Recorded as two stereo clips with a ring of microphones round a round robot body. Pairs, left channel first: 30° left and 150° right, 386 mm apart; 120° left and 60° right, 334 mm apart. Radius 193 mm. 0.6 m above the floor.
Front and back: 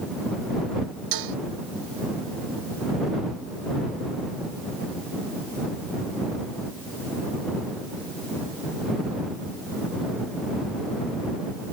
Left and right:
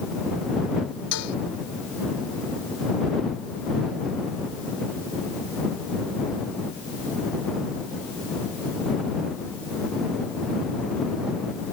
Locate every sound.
1.1 s dishes clattering: 175° left